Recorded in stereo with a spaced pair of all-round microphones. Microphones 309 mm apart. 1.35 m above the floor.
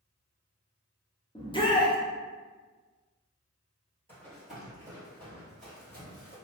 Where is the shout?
15° left (ahead or behind), 0.7 m.